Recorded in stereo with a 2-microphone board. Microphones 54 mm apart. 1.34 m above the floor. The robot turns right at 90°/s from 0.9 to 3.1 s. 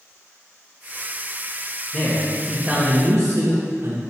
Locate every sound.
1.9 s a man speaking: 130° left, 1.7 m; by 4.0 s 125° right, 1.7 m